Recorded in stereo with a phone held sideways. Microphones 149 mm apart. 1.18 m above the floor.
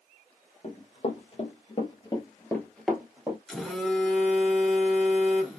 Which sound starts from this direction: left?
Running footsteps, at 0.6 s.